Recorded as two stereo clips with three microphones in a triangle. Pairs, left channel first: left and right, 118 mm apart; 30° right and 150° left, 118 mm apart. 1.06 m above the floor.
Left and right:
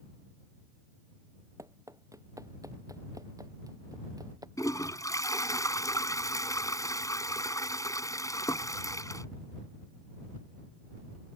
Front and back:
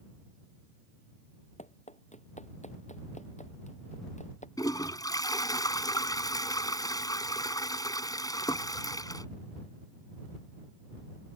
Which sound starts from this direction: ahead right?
Running footsteps, at 1.6 s.